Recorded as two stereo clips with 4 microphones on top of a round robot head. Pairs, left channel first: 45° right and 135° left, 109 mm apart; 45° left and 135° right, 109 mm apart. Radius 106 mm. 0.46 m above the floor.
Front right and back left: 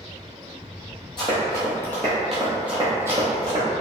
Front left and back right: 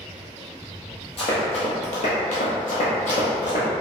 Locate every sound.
1.2 s running footsteps: 5° left, 1.1 m; by 3.6 s 80° left, 1.2 m